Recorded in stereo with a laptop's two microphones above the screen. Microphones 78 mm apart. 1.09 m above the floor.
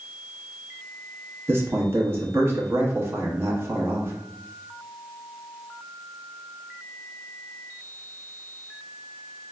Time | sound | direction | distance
1.5 | a man speaking | 35° right (ahead or behind) | 1.0 m